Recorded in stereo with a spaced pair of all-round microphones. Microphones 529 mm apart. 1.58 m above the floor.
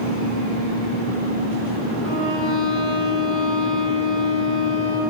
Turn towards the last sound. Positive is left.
turn(degrees=60)  # may be behind; listen again after turning